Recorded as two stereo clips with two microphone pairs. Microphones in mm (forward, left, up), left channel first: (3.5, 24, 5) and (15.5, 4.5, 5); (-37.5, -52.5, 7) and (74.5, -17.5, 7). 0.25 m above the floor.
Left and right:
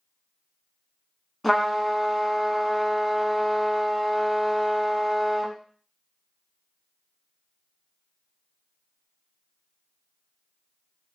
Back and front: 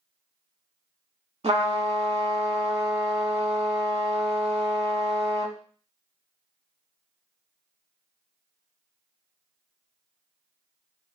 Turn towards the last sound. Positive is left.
turn(degrees=35)